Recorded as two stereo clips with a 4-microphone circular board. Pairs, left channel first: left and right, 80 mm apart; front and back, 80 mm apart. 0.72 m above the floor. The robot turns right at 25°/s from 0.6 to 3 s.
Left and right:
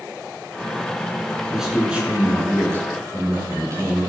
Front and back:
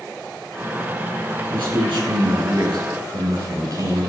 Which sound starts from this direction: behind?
A man speaking, at 1.5 s.